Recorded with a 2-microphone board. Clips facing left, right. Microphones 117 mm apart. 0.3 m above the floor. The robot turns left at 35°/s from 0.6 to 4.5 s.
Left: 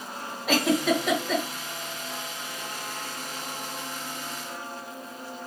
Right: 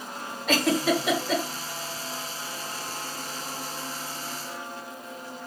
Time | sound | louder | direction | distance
0.5 | a giggle | even | 5° left (ahead or behind) | 1.5 m